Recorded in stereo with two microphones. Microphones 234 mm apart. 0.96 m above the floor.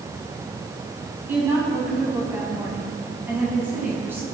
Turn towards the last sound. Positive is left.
turn(degrees=-10)  # may be behind; listen again after turning